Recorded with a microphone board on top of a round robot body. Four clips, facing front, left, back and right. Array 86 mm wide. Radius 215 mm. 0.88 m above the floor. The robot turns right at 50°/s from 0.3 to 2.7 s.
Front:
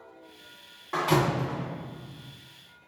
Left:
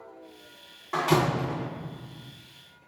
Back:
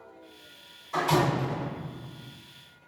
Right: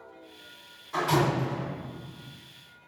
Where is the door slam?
45° left, 1.2 m; by 1.6 s 80° left, 1.2 m.